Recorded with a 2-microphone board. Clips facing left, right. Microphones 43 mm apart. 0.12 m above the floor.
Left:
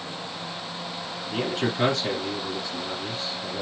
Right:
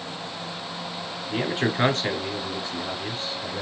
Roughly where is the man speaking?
Right.